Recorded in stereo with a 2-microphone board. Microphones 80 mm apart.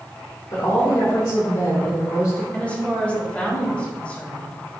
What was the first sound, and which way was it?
A woman speaking, 60° left (ahead or behind).